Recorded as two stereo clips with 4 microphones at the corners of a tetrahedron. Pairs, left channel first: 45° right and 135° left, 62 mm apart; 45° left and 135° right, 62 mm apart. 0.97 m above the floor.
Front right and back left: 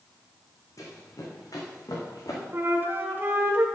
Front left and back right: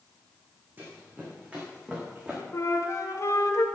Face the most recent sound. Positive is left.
turn(degrees=80)